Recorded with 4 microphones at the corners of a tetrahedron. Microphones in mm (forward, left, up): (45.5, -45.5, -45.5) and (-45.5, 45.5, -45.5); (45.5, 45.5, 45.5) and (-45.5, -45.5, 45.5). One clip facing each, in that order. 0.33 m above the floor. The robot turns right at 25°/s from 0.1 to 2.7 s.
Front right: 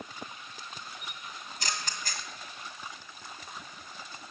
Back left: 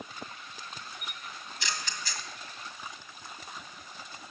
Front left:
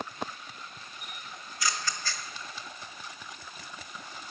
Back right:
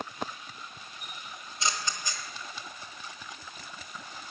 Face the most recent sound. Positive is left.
turn(degrees=-50)